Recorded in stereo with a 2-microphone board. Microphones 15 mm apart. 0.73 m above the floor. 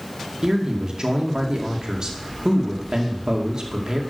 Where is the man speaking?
55° right (ahead or behind), 1.9 m.